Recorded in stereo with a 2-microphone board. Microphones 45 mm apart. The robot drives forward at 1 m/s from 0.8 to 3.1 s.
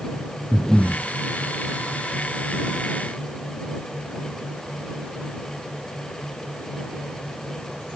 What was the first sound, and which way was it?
Breathing, 10° left (ahead or behind).